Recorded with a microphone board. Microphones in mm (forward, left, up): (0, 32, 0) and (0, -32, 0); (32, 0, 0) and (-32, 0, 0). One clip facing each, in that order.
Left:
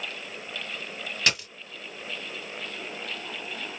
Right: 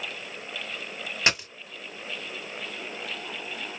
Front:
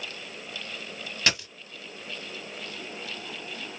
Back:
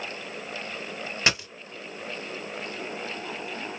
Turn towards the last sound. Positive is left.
turn(degrees=-130)